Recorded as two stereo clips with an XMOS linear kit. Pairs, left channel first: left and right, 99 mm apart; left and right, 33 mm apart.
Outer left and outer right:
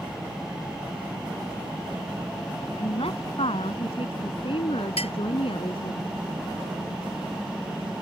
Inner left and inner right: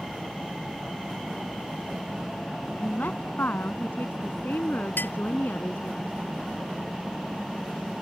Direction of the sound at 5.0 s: 85° left.